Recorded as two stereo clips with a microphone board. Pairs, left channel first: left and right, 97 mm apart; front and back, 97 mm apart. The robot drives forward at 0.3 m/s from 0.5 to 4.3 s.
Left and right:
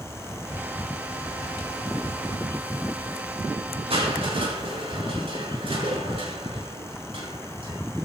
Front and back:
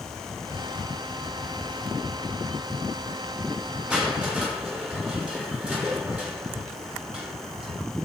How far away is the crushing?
About 5.5 m.